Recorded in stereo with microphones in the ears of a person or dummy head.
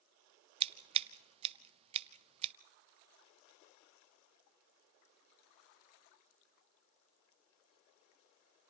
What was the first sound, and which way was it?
Scissors, 30° right (ahead or behind).